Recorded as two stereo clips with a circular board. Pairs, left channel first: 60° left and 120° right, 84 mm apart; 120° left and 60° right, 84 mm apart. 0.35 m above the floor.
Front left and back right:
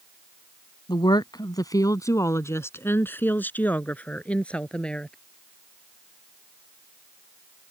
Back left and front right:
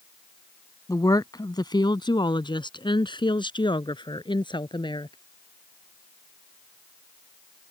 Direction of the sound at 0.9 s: 80° left.